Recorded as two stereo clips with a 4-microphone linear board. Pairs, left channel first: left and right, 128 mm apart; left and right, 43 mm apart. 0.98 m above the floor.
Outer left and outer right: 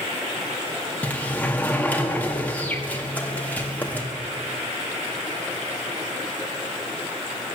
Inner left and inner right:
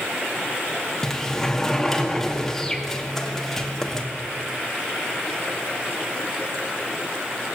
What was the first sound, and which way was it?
A sliding door, 10° left (ahead or behind).